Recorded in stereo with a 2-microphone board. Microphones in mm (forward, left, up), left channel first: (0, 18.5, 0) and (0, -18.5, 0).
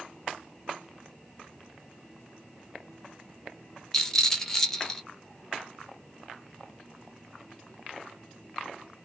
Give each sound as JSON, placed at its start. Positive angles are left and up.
{"t": 3.9, "sound": "a rattle", "side_deg": 10, "distance_m": 0.8}